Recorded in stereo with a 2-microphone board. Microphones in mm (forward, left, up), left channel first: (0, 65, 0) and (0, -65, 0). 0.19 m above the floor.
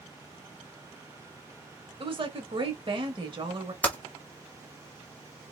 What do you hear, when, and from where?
2.0 s a woman speaking: 45° right (ahead or behind), 1.7 m
3.8 s typing on a keyboard: 10° left (ahead or behind), 1.4 m